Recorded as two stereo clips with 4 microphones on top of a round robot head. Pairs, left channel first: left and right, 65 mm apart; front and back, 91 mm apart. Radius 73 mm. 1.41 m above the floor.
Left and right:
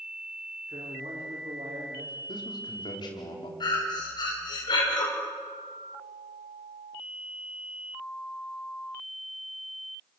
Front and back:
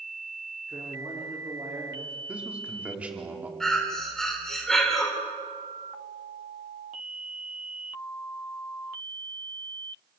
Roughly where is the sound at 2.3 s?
Left.